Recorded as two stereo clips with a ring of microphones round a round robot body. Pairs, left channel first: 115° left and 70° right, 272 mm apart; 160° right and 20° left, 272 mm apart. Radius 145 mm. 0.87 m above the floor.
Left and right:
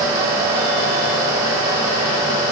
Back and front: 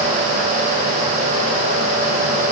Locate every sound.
Only background noise.